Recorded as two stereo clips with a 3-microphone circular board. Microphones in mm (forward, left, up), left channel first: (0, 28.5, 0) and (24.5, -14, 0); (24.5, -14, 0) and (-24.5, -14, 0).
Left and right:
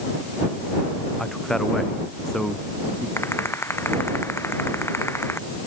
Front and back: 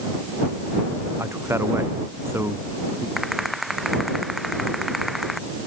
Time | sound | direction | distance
1.2 | a man speaking | 160° right | ?
3.2 | a rattle | 90° left | ?